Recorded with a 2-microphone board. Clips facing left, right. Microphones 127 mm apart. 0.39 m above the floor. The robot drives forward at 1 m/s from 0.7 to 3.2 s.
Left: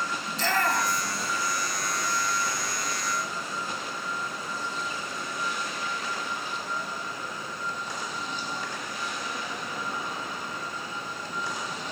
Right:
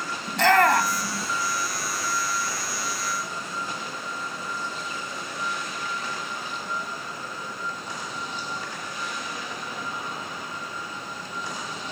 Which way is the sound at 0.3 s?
65° right (ahead or behind).